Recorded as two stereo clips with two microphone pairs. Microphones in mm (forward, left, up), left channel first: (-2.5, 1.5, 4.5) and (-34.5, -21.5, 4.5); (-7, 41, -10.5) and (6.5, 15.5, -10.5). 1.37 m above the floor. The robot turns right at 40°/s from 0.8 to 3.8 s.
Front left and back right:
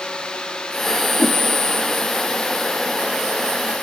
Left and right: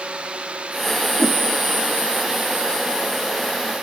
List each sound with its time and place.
1.2 s a whoosh: 35° left, 2.0 m; by 1.4 s 45° left, 2.0 m